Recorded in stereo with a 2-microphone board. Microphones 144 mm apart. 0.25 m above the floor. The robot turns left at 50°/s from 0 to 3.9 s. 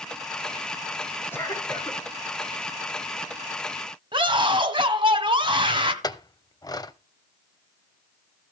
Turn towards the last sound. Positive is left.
turn(degrees=30)  # may be behind; listen again after turning